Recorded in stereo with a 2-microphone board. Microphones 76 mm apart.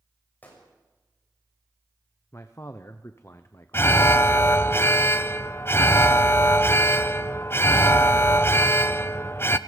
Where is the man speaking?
35° left (ahead or behind), 0.9 m.